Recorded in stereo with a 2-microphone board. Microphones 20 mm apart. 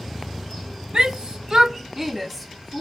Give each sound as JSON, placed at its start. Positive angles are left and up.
{"t": 0.9, "sound": "a shout", "side_deg": -50, "distance_m": 1.0}